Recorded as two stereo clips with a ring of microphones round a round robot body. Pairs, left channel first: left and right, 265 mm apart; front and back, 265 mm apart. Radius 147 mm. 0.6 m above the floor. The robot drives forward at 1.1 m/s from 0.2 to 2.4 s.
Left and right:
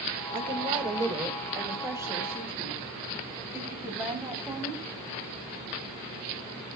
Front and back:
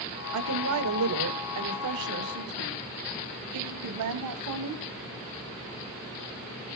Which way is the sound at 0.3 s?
160° right.